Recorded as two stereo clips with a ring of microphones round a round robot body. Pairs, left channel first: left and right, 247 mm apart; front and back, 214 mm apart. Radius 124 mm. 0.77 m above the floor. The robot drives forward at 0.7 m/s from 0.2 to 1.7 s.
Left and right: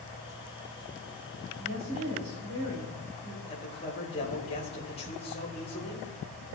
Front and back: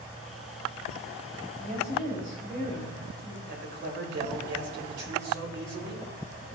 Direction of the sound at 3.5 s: 155° left.